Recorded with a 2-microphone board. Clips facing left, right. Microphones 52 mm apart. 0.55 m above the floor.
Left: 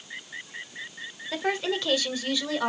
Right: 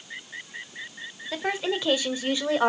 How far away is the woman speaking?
About 1.6 m.